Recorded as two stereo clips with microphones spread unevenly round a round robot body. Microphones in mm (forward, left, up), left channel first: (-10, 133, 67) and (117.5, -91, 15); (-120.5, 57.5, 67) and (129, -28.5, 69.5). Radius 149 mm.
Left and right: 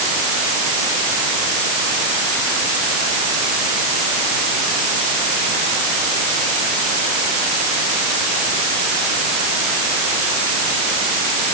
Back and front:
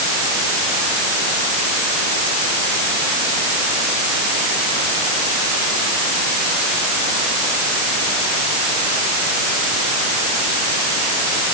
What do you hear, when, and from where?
Only background noise.